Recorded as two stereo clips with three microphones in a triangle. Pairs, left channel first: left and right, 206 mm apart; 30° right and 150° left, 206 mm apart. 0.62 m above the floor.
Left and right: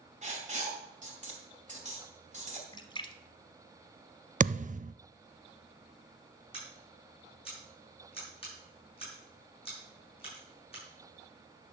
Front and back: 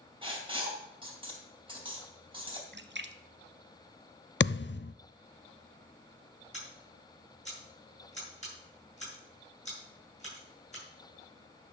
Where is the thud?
40° right, 0.5 m.